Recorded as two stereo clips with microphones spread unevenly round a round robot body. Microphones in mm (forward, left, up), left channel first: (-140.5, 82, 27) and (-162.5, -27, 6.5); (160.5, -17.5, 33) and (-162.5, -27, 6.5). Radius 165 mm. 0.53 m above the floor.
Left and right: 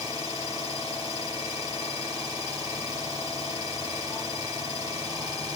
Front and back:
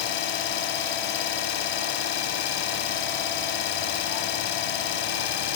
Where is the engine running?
15° right, 1.0 m.